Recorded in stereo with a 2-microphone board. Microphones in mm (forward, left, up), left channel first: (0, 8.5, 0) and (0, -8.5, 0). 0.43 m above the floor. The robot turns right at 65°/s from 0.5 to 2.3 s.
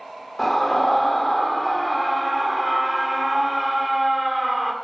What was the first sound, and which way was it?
A scream, 15° left (ahead or behind).